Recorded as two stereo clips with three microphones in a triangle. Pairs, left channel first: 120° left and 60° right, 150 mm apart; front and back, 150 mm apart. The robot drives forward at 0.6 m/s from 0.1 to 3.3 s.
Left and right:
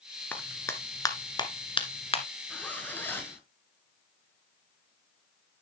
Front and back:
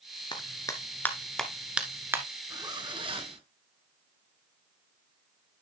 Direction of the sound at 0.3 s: 45° left.